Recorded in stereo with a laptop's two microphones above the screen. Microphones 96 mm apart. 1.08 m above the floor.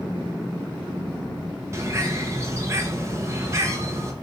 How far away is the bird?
About 0.8 m.